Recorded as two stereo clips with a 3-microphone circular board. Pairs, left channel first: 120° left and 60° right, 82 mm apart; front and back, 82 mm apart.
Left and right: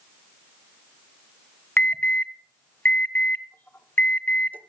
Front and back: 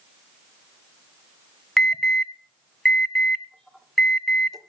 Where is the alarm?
80° left, 1.2 m.